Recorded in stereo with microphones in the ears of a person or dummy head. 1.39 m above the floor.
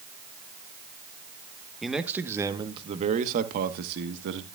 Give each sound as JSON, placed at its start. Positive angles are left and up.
{"t": 1.8, "sound": "a man speaking", "side_deg": 0, "distance_m": 1.1}